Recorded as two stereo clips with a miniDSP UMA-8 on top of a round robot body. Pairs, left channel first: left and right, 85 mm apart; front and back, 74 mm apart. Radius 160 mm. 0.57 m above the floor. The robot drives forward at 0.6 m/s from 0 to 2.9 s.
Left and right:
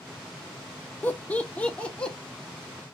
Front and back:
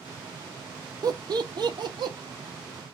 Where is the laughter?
160° left, 1.0 m; by 2.2 s 170° left, 1.6 m.